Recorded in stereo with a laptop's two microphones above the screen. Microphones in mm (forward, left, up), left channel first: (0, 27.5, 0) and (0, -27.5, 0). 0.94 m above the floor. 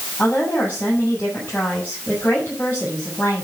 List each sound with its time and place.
0.2 s a woman speaking: 35° left (ahead or behind), 7.5 m